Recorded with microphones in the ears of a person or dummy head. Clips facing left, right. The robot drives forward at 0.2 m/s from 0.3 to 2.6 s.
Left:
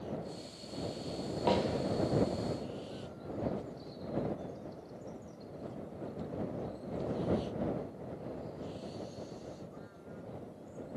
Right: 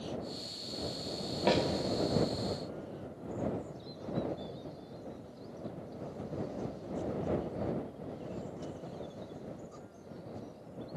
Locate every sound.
1.5 s a snare drum: 30° right (ahead or behind), 1.7 m